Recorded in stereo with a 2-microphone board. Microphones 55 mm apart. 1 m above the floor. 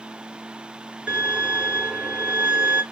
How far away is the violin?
About 2.5 m.